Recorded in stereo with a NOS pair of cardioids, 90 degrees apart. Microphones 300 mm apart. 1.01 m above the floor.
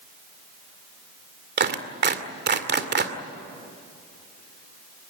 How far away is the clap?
About 2 m.